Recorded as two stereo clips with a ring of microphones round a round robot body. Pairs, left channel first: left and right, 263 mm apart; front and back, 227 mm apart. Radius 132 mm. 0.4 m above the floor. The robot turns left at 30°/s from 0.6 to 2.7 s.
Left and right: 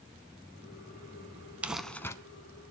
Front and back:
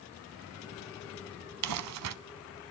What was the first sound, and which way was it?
Crumpling, 175° right.